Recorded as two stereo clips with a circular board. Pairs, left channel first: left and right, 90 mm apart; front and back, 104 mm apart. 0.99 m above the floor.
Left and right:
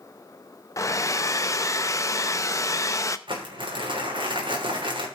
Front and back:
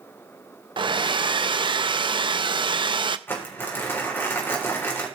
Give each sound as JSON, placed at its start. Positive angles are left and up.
{"t": 0.8, "sound": "a hair dryer", "azimuth_deg": 140, "distance_m": 0.6}
{"t": 3.3, "sound": "crumpling", "azimuth_deg": -70, "distance_m": 3.5}